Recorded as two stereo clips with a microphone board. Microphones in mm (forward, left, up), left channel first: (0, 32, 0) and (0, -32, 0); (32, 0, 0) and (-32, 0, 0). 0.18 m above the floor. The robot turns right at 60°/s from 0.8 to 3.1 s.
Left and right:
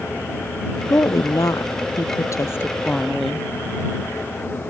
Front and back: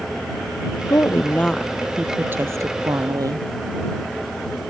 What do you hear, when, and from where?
0.9 s a woman speaking: 40° left; by 3.5 s 170° left